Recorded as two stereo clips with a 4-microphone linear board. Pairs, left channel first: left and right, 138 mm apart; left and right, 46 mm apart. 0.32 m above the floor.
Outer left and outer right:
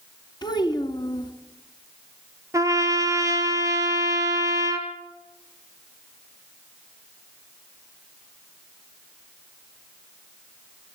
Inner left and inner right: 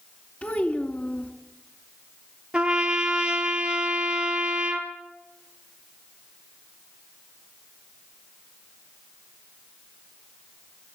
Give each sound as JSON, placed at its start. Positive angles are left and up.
{"t": 0.4, "sound": "a child speaking", "side_deg": 30, "distance_m": 2.0}
{"t": 2.5, "sound": "a trumpet", "side_deg": -20, "distance_m": 2.5}